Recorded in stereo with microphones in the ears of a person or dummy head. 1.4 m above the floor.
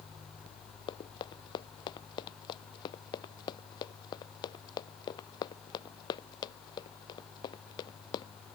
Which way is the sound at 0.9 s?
40° left (ahead or behind).